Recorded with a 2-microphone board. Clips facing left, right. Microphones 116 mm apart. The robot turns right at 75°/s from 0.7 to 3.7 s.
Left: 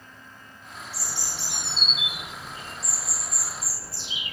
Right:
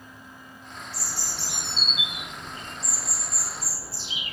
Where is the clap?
I don't hear a clap.